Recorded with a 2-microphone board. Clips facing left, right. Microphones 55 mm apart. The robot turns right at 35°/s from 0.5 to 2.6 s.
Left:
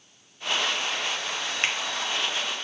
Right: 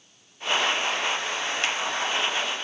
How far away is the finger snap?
About 0.9 m.